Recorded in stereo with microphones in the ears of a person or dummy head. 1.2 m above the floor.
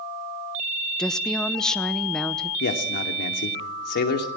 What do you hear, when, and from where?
1.0 s a woman speaking: centre (ahead or behind), 0.7 m
2.6 s a man speaking: 50° left (ahead or behind), 2.5 m